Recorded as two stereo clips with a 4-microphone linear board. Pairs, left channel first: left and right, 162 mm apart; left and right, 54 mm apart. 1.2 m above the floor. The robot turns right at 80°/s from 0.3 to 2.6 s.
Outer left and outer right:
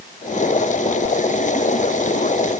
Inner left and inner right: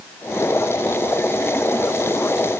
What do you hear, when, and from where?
Only background noise.